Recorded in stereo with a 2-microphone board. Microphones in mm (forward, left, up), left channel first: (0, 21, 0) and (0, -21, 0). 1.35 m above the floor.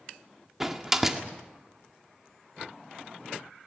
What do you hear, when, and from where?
0.6 s a door slam: 10° right (ahead or behind), 1.8 m